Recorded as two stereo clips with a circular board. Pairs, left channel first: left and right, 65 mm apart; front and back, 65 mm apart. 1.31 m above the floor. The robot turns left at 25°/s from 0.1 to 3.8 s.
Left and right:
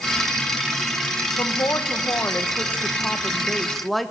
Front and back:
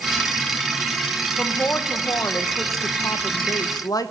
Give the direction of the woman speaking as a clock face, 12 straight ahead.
10 o'clock.